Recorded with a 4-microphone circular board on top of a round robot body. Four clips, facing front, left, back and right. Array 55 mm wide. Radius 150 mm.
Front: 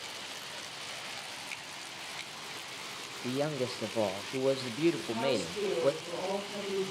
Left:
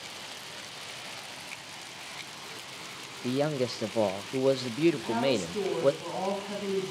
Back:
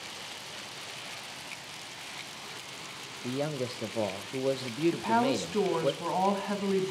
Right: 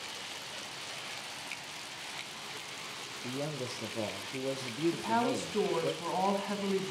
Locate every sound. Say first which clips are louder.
3.2 s a man speaking: left 10 dB, even; 85° left, 1.0 m
4.9 s a woman speaking: left 3 dB, back 4 dB; 160° right, 5.5 m